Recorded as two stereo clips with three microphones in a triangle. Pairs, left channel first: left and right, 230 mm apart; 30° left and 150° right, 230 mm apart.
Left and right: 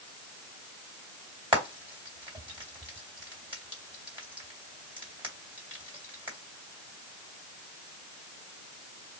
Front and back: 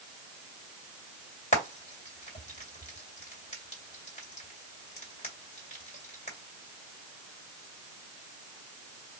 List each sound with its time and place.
1.5 s frying: 25° right, 2.5 m